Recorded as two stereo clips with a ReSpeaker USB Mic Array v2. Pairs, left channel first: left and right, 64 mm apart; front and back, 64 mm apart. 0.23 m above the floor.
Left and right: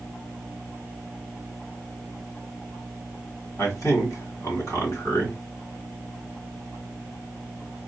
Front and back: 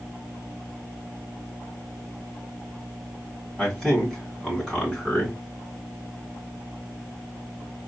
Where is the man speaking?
90° left, 2.5 m.